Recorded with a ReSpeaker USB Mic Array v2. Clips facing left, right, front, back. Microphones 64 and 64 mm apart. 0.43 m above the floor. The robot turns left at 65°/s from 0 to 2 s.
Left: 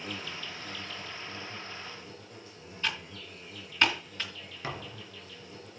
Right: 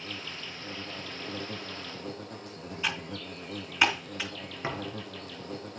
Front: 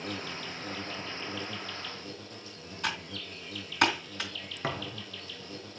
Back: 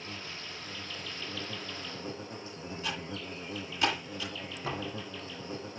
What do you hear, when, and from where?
0.0 s an insect: 15° left, 2.0 m; by 5.8 s 115° right, 2.0 m
2.8 s typing on a keyboard: 15° right, 3.5 m
4.6 s a thud: 25° right, 3 m